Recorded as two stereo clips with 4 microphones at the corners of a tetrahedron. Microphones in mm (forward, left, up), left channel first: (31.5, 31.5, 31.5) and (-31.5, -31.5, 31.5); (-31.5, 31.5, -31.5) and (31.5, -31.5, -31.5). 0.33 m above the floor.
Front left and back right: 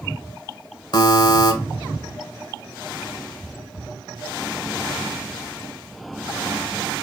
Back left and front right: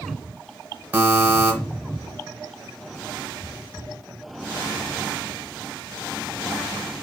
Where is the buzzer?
20° left, 0.7 m.